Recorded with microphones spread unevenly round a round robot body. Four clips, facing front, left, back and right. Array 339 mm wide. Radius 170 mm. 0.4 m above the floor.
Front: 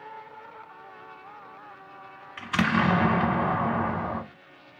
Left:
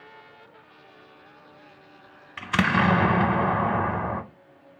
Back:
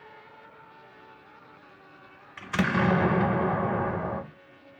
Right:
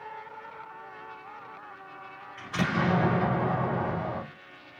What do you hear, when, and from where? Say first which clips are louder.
2.4 s an explosion: left 6 dB, front 2 dB; 80° left, 0.9 m